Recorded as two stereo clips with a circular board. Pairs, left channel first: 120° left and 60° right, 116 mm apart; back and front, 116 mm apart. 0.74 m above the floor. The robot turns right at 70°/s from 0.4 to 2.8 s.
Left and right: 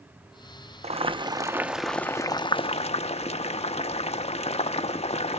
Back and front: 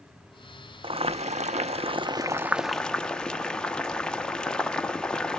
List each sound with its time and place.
0.8 s boiling: 40° right, 0.7 m; by 5.4 s 100° left, 0.7 m